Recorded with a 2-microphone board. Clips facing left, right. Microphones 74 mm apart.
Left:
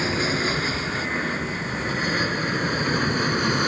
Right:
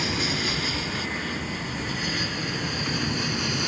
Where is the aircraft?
35° left (ahead or behind); by 3.7 s 45° left (ahead or behind).